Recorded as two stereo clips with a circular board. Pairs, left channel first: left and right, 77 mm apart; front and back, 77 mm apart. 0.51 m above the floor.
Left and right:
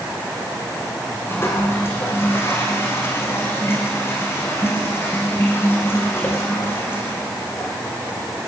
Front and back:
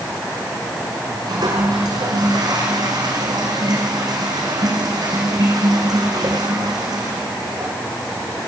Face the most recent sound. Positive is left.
turn(degrees=150)